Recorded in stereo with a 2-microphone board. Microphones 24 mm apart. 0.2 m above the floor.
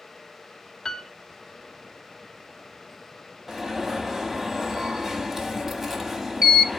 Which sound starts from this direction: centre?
An alarm, at 3.5 s.